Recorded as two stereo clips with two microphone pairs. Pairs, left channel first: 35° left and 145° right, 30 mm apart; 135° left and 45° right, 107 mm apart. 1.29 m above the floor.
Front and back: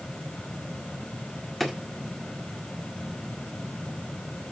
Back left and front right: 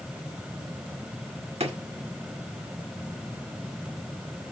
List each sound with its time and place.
1.6 s a drawer: 45° right, 1.8 m